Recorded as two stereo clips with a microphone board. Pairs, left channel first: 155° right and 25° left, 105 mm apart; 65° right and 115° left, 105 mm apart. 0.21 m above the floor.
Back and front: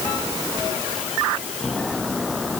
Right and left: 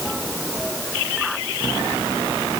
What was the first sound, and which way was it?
Only background noise.